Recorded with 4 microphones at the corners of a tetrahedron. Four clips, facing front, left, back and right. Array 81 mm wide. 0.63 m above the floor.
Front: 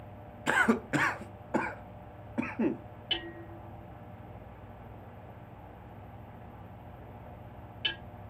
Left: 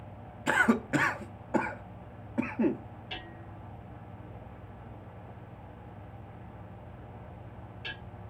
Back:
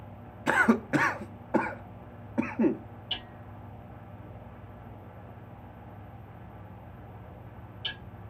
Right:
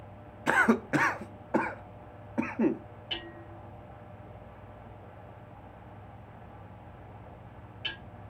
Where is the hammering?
20° right, 4.5 m.